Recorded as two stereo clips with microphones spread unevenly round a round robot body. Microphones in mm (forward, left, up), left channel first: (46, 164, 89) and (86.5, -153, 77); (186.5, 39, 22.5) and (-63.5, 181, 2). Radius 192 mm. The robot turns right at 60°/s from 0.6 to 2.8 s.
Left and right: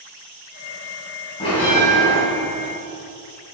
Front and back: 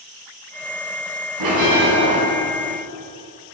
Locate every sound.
1.4 s a bell: 170° left, 3 m; by 2.2 s 140° right, 3 m